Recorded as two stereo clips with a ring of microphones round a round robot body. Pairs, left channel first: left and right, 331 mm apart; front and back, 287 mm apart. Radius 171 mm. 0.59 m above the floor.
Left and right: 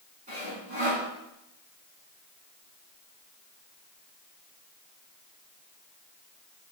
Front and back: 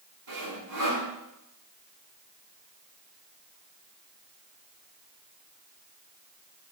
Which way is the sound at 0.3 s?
160° right.